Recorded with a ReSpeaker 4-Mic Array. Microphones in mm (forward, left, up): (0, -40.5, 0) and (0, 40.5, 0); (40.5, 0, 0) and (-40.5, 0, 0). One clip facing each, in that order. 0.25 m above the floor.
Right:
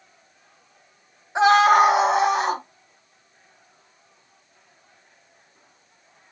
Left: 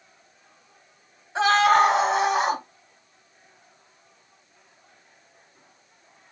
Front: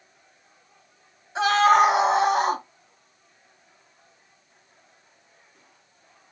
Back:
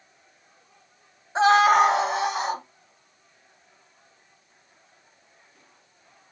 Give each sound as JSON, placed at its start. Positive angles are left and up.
{"t": 1.4, "sound": "a scream", "azimuth_deg": -150, "distance_m": 1.1}